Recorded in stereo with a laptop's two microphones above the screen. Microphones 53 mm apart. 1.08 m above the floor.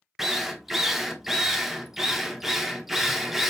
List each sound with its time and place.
0.2 s a drill: 5° right (ahead or behind), 0.7 m